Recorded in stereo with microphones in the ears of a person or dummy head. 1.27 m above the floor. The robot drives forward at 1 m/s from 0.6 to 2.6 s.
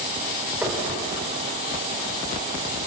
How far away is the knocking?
About 3.5 m.